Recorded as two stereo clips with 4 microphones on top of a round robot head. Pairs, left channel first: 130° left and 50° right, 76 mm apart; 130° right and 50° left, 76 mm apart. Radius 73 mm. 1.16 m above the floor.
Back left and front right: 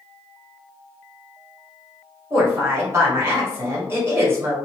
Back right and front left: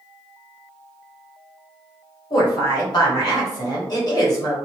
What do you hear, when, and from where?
2.3 s a woman speaking: 100° right, 1.3 m